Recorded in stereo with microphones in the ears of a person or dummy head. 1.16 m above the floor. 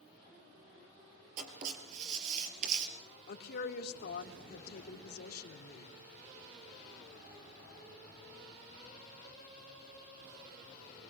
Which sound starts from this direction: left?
A woman speaking, at 3.3 s.